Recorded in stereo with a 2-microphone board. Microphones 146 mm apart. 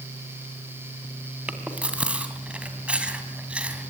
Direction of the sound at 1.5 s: 10° right (ahead or behind).